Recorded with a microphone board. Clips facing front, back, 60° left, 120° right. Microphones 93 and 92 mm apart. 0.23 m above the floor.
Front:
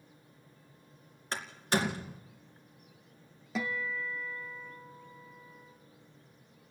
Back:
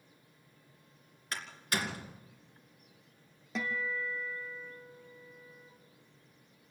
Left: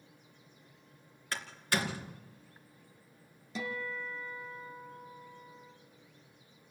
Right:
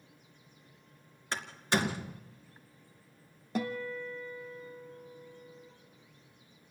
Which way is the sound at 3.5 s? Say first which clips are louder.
Front 1 dB, right 4 dB; 85° right.